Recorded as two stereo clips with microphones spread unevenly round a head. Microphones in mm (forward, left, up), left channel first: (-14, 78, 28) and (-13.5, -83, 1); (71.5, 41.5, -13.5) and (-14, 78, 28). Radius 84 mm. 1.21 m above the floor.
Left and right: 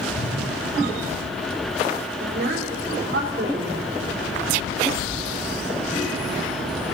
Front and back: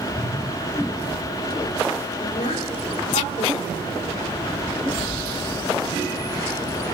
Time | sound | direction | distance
0.1 | a whoosh | 100° left | 7 m
2.2 | a woman speaking | 55° right | 4 m